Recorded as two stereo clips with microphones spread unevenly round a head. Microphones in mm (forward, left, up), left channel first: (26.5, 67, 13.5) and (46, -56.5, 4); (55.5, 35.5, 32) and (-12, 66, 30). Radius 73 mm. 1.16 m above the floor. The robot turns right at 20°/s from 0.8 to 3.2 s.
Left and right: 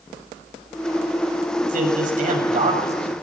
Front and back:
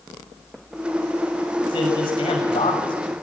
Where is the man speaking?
70° right, 7 m; by 3.1 s 40° right, 7 m.